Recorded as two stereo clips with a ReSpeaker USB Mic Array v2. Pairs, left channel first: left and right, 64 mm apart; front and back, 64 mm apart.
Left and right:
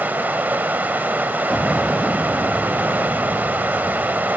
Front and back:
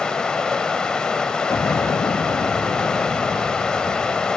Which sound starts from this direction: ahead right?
Running water, at 0.0 s.